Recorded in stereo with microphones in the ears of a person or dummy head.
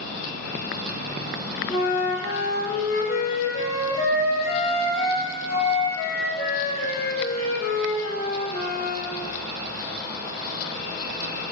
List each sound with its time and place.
1.7 s a flute: 40° left (ahead or behind), 0.8 m